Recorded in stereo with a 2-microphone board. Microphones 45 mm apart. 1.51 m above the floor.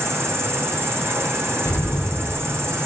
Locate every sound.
0.0 s an insect: 70° right (ahead or behind), 0.9 m
1.6 s an explosion: 75° left (ahead or behind), 0.6 m